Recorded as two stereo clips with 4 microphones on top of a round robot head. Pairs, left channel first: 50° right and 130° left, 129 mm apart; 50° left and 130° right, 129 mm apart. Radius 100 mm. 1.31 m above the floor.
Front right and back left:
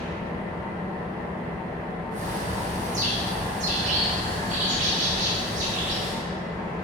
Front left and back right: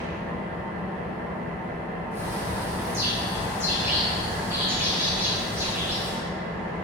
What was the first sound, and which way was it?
An engine running, 125° right.